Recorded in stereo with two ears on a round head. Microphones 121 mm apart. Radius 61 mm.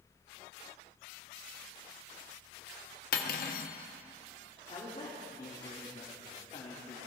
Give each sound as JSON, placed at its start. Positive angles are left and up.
{"t": 3.1, "sound": "cutlery clinking", "side_deg": 70, "distance_m": 1.0}
{"t": 4.7, "sound": "a man speaking", "side_deg": 40, "distance_m": 1.9}